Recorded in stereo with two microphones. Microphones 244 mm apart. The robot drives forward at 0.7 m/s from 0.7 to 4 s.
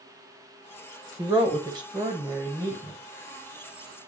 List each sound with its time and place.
1.2 s a woman speaking: 20° right (ahead or behind), 1.1 m; by 3.0 s 15° right (ahead or behind), 1.6 m